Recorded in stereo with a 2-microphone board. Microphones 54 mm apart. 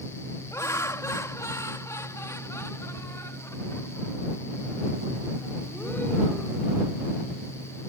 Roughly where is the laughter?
Left.